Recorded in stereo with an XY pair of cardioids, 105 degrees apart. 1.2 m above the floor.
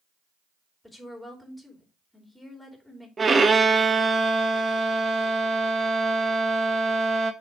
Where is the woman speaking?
5° left, 3 m.